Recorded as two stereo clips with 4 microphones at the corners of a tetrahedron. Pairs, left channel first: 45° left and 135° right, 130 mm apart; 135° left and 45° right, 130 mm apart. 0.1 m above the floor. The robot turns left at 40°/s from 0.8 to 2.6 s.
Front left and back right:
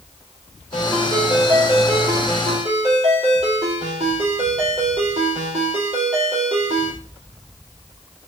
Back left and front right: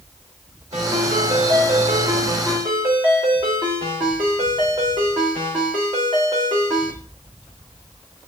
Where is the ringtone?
30° right, 3 m; by 6.9 s 100° right, 3 m.